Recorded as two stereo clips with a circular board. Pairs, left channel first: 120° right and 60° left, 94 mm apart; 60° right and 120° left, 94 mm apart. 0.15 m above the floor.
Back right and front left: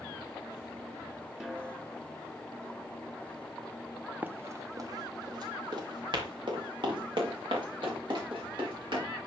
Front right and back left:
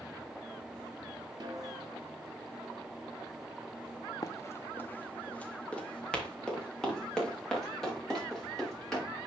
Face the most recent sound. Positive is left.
turn(degrees=30)